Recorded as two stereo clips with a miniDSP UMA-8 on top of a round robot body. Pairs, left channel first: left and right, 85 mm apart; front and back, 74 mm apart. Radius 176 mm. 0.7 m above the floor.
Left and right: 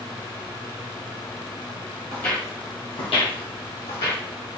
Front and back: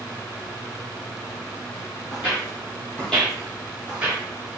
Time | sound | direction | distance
2.1 | footsteps | 10° left | 1.3 m